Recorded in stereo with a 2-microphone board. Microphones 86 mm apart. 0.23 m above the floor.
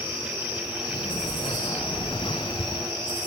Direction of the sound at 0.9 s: 90° left.